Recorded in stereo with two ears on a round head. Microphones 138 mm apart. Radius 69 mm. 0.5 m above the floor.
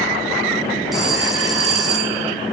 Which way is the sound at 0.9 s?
Centre (ahead or behind).